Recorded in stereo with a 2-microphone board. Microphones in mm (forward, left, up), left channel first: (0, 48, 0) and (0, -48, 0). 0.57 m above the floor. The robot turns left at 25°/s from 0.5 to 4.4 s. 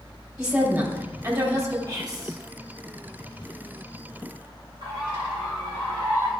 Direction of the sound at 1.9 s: 40° right (ahead or behind).